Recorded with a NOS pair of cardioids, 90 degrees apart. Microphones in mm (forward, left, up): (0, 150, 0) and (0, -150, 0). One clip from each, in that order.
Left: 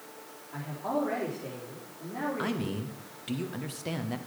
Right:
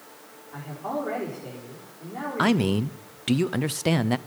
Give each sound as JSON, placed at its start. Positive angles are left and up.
{"t": 0.5, "sound": "a man speaking", "azimuth_deg": 0, "distance_m": 4.5}
{"t": 2.4, "sound": "a man speaking", "azimuth_deg": -50, "distance_m": 0.6}